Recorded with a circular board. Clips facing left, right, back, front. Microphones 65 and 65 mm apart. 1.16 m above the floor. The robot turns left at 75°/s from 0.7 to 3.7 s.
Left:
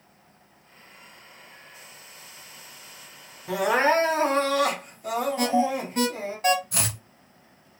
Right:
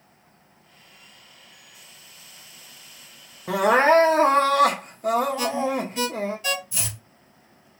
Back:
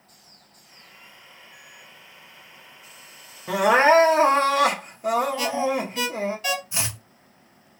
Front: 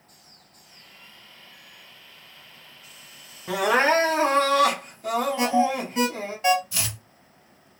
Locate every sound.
3.5 s crying: 95° right, 1.0 m; by 6.4 s 110° right, 1.0 m
5.4 s an alarm: 55° left, 1.9 m
6.7 s chopping: 115° left, 0.6 m